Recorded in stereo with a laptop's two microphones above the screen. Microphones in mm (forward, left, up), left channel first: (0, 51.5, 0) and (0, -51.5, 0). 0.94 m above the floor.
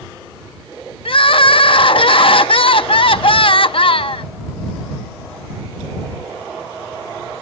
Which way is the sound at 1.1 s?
55° left (ahead or behind).